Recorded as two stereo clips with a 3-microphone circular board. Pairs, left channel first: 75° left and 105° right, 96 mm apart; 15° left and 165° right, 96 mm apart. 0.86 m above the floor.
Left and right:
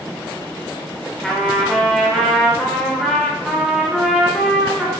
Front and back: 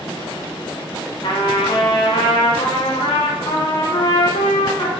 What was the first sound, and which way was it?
A trumpet, 10° right.